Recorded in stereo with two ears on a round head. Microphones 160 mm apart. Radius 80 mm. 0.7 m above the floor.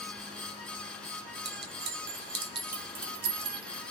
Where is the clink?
60° right (ahead or behind), 1.0 m.